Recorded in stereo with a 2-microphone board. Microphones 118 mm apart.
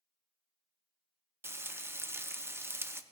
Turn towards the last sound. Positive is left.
turn(degrees=-20)  # may be behind; listen again after turning